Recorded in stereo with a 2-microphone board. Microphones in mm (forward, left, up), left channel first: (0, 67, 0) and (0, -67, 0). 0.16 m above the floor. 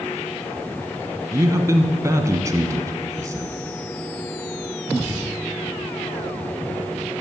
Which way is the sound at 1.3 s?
25° right (ahead or behind).